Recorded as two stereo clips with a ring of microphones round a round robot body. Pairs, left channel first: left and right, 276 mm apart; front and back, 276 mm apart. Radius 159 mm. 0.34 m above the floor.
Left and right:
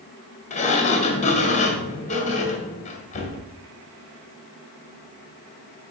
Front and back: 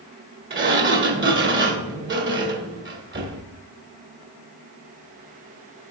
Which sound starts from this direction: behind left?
A sliding door, at 0.5 s.